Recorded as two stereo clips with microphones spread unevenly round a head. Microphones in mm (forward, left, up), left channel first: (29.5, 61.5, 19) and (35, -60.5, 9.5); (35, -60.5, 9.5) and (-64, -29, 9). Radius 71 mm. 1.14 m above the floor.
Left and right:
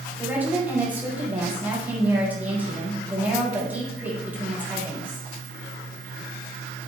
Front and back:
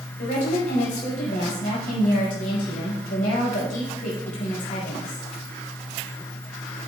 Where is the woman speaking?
10° right, 5 m.